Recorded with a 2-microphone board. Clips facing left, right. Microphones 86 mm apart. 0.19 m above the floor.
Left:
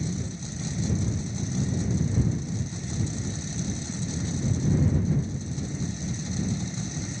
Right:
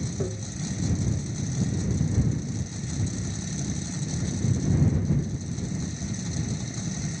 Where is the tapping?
45° right (ahead or behind).